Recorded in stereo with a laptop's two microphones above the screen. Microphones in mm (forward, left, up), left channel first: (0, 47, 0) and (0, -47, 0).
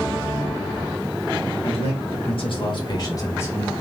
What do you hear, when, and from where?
1.6 s a man speaking: 80° left, 1.4 m; by 3.8 s 15° left (ahead or behind), 1.1 m